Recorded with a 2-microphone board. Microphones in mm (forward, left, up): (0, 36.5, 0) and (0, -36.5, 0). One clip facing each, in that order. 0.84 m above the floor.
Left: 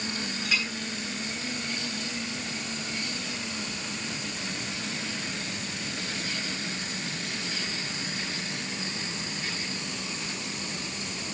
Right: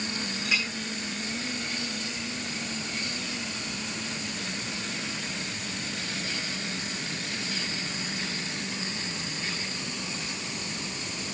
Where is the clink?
Centre (ahead or behind), 7.5 m.